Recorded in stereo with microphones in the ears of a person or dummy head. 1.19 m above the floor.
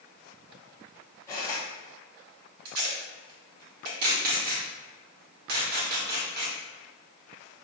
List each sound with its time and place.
1.3 s cutlery clinking: 15° left (ahead or behind), 1.0 m
2.6 s tape being pulled: 45° right (ahead or behind), 1.3 m